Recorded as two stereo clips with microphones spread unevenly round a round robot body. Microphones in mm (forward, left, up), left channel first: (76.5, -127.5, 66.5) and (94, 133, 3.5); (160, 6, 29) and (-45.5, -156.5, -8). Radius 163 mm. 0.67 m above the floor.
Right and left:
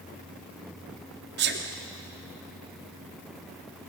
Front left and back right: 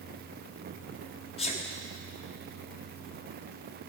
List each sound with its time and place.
1.4 s a sneeze: 110° left, 1.1 m